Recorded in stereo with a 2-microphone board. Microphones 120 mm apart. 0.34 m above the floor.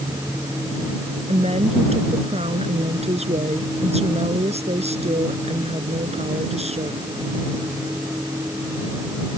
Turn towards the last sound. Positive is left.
turn(degrees=-65)  # may be behind; listen again after turning